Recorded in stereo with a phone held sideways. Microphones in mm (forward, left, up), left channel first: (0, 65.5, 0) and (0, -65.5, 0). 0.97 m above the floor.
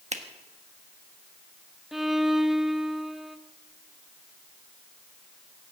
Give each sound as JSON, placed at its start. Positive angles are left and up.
{"t": 0.1, "sound": "a finger snap", "side_deg": -60, "distance_m": 1.3}
{"t": 1.9, "sound": "a violin", "side_deg": 0, "distance_m": 0.7}